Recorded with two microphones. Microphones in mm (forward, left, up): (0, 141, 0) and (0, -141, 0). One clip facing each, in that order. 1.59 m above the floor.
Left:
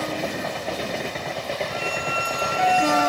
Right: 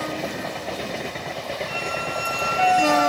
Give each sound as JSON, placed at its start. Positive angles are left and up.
{"t": 1.7, "sound": "a squeak", "side_deg": -75, "distance_m": 7.5}